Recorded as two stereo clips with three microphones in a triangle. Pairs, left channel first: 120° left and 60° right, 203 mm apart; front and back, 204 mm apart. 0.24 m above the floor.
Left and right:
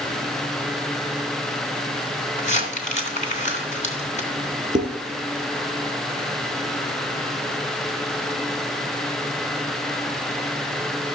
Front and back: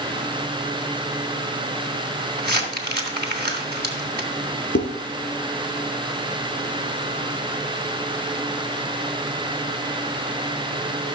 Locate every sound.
2.4 s crumpling: 165° left, 2.5 m
4.8 s dishes clattering: 20° right, 3.5 m